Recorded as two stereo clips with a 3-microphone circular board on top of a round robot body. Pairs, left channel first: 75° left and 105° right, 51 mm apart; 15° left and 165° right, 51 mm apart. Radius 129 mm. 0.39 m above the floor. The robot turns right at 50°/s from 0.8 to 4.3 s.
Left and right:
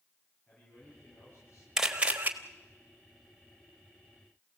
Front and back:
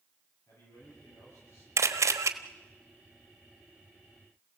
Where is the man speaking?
15° left, 9 m; by 1.7 s 55° left, 9 m.